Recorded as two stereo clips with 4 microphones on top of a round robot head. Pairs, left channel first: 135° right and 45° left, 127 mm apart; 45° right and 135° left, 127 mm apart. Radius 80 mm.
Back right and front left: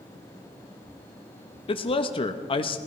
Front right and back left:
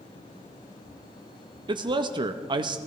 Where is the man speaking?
175° right, 0.7 m.